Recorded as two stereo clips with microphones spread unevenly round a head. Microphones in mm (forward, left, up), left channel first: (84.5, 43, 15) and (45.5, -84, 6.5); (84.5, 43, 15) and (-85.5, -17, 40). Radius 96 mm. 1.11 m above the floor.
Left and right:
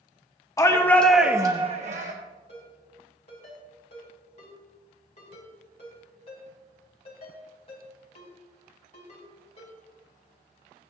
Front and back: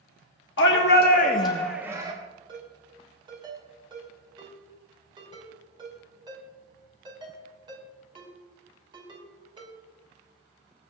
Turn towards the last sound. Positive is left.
turn(degrees=135)